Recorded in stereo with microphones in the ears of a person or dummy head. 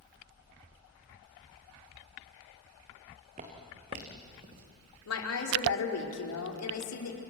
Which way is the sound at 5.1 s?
75° left (ahead or behind).